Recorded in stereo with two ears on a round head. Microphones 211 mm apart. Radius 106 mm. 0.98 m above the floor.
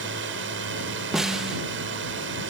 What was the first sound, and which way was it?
A drone, 50° right (ahead or behind).